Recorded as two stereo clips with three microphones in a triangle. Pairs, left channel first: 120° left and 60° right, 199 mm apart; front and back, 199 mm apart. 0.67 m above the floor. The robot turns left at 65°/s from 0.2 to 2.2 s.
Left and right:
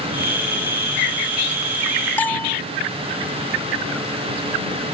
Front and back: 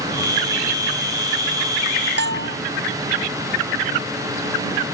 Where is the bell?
160° right.